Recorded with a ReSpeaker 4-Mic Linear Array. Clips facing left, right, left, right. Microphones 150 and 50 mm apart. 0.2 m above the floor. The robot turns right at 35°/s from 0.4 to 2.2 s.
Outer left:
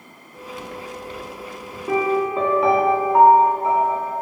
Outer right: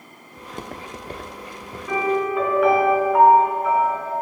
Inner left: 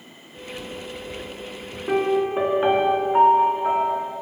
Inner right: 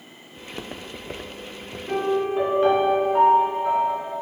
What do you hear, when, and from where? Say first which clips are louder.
0.4 s footsteps: outer left 2 dB, inner left 1 dB; 40° right (ahead or behind), 0.8 m; by 1.8 s 45° right (ahead or behind), 1.5 m
1.9 s a piano: outer left 2 dB, inner left 2 dB; 40° left (ahead or behind), 1.2 m; by 4.1 s 30° left (ahead or behind), 1.2 m